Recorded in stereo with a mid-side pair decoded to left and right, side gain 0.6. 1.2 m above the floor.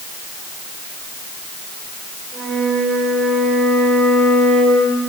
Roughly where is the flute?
Ahead right.